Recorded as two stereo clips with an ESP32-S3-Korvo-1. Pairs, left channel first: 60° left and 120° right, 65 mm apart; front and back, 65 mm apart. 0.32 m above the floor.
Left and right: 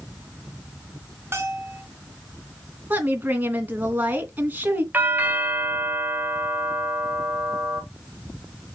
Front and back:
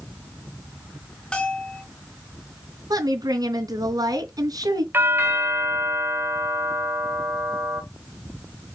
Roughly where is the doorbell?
Behind.